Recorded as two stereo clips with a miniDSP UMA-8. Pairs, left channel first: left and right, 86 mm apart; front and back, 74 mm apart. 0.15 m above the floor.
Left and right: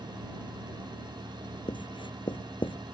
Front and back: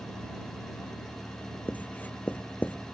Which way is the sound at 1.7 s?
70° left.